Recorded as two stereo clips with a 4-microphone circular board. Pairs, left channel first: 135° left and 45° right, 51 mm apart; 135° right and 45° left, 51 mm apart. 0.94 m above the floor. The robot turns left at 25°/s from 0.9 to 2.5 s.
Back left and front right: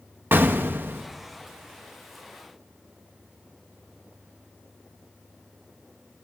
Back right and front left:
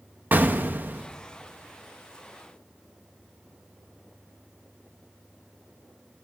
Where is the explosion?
5° right, 0.9 m.